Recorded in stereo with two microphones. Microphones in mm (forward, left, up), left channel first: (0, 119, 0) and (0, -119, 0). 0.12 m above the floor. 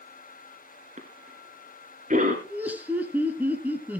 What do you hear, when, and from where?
1.0 s a cough: 35° right (ahead or behind), 1.7 m
2.5 s laughter: 5° right (ahead or behind), 1.6 m